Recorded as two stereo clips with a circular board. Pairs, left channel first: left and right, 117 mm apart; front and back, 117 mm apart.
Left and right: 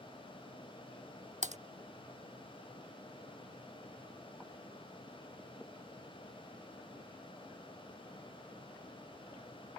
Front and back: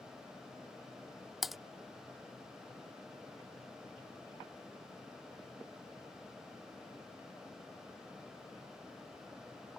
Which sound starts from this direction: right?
Typing on a keyboard, at 1.4 s.